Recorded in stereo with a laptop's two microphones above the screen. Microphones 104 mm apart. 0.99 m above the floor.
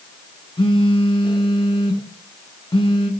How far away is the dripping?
No dripping in this recording.